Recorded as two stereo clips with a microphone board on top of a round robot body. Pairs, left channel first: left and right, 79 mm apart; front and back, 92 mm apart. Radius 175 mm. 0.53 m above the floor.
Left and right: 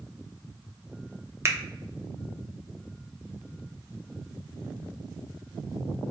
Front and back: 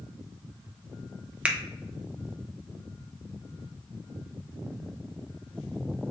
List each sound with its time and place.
1.4 s a finger snap: 110° right, 0.7 m